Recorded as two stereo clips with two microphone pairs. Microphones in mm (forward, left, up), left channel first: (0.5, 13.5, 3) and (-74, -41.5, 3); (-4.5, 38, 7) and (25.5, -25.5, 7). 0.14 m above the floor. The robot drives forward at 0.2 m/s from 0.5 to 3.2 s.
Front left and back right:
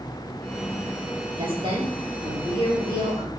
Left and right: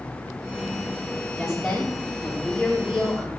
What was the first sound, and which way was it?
A woman speaking, 150° right.